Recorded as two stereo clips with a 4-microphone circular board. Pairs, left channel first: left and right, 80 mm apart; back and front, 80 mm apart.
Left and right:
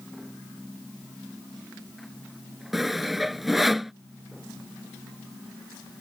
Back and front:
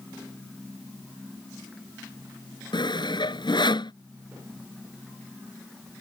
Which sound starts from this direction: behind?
Sawing, at 2.7 s.